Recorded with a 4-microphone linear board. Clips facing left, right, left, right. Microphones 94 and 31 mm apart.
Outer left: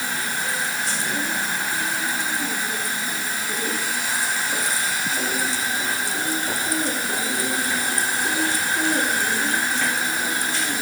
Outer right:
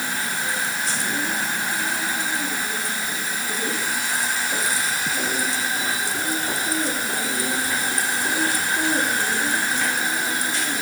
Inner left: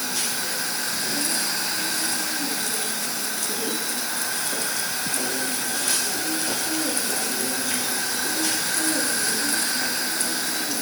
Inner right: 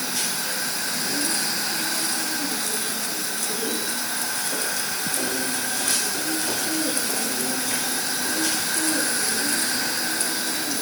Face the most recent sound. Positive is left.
No sound to turn to.